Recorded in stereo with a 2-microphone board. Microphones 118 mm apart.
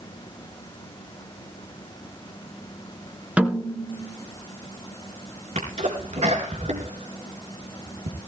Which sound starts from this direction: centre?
A snare drum, at 3.4 s.